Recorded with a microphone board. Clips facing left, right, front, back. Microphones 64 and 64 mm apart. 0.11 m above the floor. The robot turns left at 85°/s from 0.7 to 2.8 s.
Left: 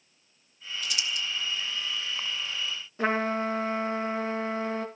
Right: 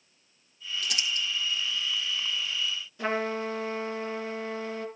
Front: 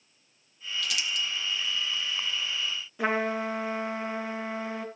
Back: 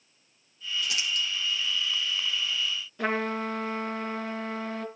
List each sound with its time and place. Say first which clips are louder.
0.8 s crumpling: right 1 dB, back 1 dB; 110° right, 3 m; by 1.2 s 150° right, 3 m
3.0 s a trumpet: left 3 dB, front 1 dB; 70° left, 2 m